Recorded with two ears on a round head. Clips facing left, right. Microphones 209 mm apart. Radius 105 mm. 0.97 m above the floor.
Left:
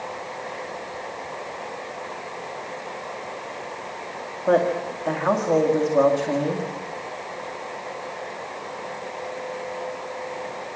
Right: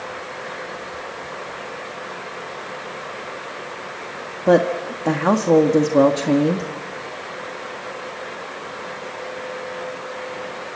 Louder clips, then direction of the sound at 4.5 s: Right 4 dB; 60° right (ahead or behind).